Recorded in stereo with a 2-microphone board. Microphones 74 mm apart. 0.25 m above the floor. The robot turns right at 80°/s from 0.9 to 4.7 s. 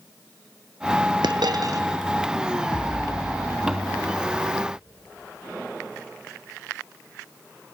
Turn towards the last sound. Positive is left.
turn(degrees=-90)